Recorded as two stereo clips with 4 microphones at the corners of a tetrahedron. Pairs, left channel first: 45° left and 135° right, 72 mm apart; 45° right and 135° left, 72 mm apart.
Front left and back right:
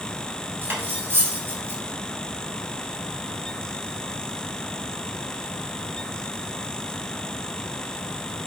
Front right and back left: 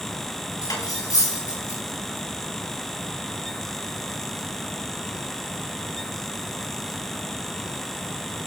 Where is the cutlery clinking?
75° right, 3.5 m.